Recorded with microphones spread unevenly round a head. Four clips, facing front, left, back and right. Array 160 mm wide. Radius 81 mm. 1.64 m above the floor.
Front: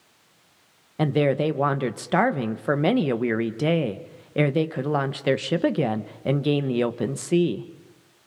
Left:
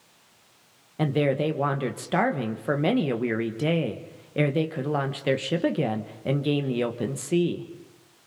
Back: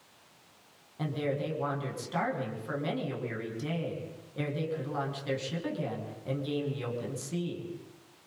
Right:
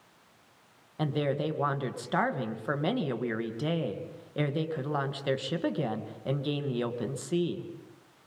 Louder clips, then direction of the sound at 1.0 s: Left 6 dB, front 11 dB; 25° left.